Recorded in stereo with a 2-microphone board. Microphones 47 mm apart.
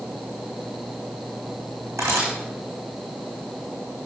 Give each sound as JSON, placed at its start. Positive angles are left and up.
{"t": 2.0, "sound": "a camera shutter", "side_deg": -85, "distance_m": 4.0}